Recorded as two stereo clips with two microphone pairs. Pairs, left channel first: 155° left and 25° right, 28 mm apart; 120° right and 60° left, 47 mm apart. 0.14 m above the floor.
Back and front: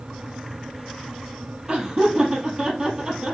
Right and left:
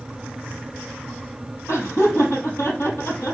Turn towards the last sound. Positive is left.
turn(degrees=-95)